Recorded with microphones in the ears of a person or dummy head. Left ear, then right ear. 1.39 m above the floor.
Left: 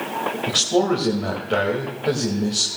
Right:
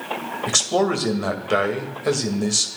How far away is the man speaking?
About 2 m.